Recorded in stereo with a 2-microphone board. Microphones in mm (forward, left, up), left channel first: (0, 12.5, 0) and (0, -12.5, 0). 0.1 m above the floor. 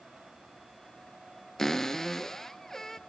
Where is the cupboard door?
20° left (ahead or behind), 0.8 m.